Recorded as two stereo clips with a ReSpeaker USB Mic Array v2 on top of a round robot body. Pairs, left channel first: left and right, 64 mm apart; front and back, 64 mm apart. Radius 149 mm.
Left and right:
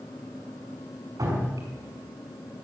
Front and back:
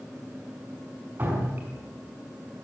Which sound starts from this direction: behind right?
Dripping, at 1.2 s.